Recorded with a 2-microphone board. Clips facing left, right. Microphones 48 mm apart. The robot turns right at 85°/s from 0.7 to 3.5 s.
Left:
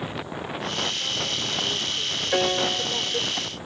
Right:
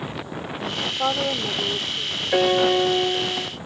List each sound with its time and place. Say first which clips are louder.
0.8 s a woman speaking: right 5 dB; 100° right; by 3.3 s 110° left
2.3 s a piano: right 6 dB; 175° right; by 3.5 s 75° right